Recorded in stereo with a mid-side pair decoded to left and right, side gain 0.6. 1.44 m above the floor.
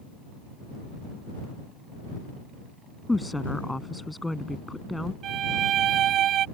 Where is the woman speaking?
5° left.